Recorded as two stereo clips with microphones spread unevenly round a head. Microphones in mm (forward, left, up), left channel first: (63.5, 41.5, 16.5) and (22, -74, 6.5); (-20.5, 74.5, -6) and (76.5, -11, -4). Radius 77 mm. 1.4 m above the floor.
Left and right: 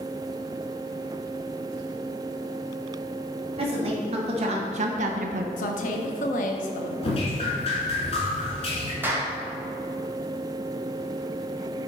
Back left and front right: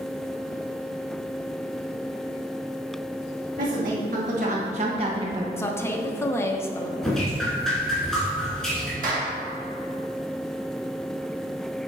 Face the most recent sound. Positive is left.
turn(degrees=-35)